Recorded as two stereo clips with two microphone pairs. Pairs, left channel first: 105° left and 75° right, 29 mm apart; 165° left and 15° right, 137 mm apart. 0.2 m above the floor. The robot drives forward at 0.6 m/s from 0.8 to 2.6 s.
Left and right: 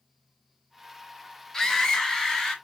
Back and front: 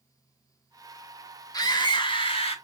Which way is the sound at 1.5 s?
155° left.